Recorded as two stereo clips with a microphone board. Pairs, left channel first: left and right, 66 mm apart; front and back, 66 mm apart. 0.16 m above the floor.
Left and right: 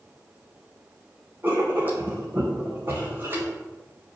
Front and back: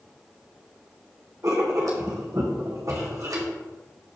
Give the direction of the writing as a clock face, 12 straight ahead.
5 o'clock.